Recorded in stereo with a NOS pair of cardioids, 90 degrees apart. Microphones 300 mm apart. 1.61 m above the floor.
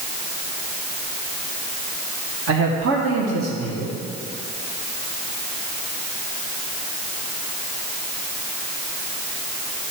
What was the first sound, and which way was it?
A man speaking, 50° right.